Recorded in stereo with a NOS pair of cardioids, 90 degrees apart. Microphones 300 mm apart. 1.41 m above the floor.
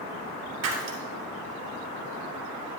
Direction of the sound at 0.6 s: 60° right.